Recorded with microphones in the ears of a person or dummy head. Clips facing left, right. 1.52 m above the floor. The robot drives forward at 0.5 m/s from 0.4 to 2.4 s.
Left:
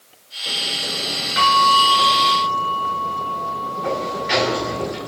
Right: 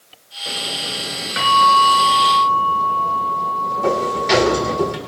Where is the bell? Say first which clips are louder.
Right 2 dB; 25° right (ahead or behind), 3.5 m; by 4.8 s 20° right (ahead or behind), 3.5 m.